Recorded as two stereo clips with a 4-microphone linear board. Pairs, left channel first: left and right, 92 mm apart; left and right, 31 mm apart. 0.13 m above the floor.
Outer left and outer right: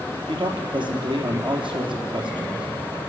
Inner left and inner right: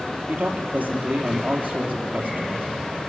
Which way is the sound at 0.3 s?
60° right (ahead or behind).